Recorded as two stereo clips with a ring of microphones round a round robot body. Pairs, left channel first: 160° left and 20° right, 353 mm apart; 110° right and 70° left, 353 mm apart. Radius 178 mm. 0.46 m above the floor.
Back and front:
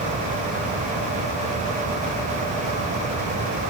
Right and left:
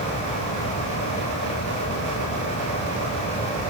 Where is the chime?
I don't hear a chime.